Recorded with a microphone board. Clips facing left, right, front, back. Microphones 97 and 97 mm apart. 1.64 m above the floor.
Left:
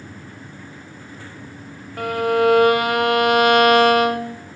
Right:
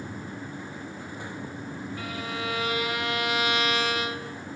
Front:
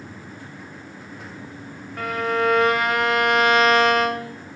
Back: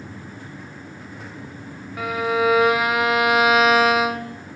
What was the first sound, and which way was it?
A violin, 95° left.